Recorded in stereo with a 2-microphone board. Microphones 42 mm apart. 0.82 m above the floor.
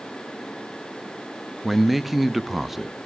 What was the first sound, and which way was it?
A man speaking, 5° right (ahead or behind).